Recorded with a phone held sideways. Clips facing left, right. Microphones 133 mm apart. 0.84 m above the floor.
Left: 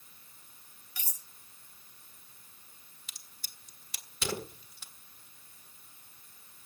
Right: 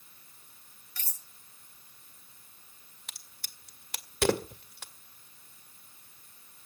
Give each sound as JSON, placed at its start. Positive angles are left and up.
{"t": 1.0, "sound": "cutlery clinking", "side_deg": 15, "distance_m": 0.9}
{"t": 3.1, "sound": "a crack", "side_deg": -65, "distance_m": 1.6}